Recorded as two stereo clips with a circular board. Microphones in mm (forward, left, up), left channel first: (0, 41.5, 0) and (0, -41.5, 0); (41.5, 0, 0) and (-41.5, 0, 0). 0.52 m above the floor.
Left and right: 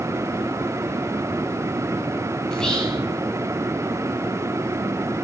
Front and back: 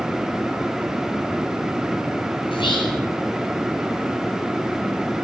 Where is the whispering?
10° left, 7 m.